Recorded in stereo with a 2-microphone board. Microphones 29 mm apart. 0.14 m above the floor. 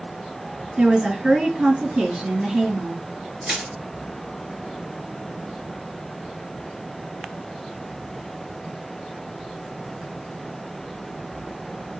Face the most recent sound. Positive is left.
turn(degrees=-15)  # may be behind; listen again after turning